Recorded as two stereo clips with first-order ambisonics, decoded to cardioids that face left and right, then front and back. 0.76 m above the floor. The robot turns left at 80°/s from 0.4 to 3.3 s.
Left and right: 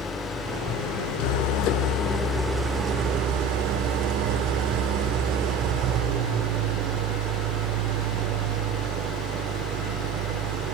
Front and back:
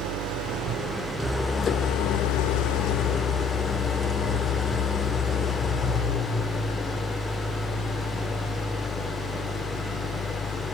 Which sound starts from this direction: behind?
An engine running, at 0.0 s.